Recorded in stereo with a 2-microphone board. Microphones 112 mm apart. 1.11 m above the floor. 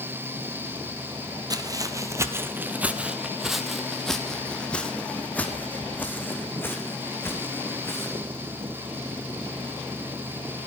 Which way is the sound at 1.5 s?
35° right (ahead or behind).